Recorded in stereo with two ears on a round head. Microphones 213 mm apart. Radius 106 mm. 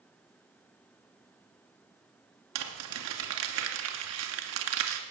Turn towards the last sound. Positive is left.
turn(degrees=-75)  # may be behind; listen again after turning